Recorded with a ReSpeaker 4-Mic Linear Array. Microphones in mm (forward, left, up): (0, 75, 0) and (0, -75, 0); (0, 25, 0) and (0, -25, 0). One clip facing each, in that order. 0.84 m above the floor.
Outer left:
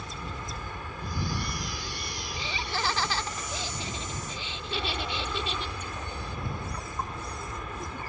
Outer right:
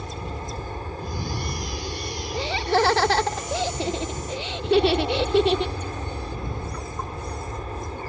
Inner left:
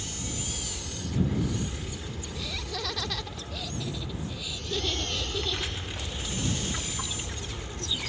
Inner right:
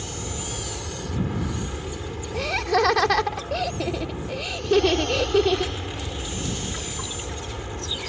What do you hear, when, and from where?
0.0 s an aircraft: 35° right (ahead or behind)
2.3 s laughter: 70° right (ahead or behind)